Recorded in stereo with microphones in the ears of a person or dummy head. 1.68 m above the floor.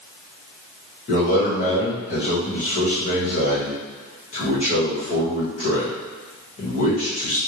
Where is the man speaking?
45° left (ahead or behind), 1.2 m.